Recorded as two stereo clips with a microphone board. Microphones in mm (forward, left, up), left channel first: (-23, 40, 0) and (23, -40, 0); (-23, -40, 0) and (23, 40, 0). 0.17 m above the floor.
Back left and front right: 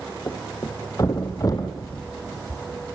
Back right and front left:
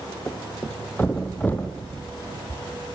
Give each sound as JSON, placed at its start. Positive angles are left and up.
{"t": 0.3, "sound": "a thud", "azimuth_deg": 170, "distance_m": 3.0}